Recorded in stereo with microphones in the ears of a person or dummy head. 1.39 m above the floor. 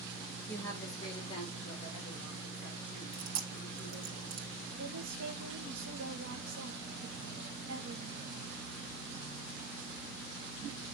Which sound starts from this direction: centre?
A woman speaking, at 0.5 s.